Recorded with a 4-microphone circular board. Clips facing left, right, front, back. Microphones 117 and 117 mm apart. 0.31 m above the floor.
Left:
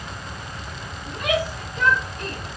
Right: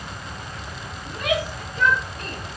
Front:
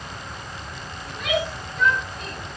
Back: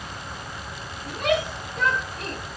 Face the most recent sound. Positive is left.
turn(degrees=145)